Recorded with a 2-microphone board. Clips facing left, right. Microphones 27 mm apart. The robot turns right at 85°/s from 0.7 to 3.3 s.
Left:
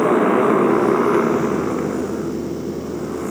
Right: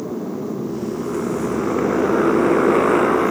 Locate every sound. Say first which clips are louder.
0.0 s a motorcycle: left 11 dB; 100° left; by 3.3 s 35° right